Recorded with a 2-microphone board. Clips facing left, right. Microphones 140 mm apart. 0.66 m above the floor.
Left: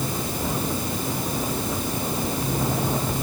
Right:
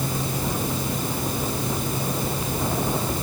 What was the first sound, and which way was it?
Only background noise.